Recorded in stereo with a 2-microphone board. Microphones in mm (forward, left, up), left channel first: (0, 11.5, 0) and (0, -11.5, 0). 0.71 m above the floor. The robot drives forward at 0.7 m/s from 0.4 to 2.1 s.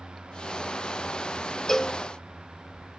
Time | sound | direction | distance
1.7 | a cowbell | 20° left (ahead or behind) | 0.7 m